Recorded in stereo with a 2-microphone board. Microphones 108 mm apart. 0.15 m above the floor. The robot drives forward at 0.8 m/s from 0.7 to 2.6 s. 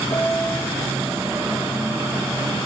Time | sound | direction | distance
0.1 | a piano | 20° left (ahead or behind) | 0.9 m